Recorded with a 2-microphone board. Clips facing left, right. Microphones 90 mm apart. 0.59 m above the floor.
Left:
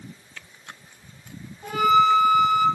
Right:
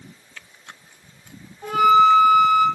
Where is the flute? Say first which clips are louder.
Right 4 dB; 70° right (ahead or behind), 4 m.